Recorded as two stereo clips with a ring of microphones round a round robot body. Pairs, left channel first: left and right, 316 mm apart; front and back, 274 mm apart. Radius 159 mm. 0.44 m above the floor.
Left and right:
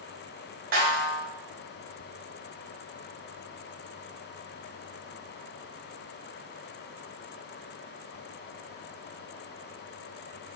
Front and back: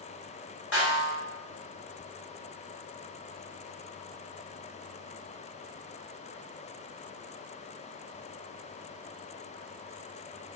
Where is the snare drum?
35° right, 2.5 m.